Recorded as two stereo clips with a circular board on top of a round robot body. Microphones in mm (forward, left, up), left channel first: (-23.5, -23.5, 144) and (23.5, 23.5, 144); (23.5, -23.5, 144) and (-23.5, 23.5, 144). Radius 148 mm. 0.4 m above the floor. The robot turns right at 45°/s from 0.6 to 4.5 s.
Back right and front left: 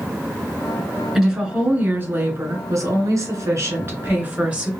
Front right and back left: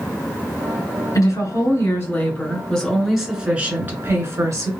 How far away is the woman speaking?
About 2 m.